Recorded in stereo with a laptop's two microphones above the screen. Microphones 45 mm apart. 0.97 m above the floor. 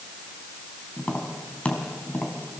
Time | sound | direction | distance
1.0 | tapping | 25° left (ahead or behind) | 3.5 m